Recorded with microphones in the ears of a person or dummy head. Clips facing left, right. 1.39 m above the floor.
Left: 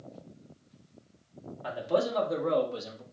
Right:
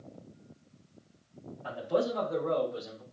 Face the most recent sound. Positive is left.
turn(degrees=70)  # may be behind; listen again after turning